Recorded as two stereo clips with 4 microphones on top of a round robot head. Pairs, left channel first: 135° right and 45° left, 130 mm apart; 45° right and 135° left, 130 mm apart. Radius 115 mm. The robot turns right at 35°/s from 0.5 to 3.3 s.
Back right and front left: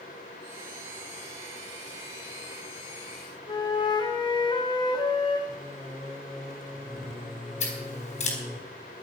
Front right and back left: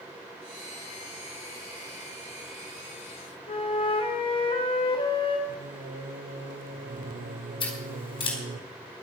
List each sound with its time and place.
3.5 s a flute: 85° right, 2.0 m
5.5 s singing: 140° left, 1.0 m
7.6 s scissors: 100° right, 4 m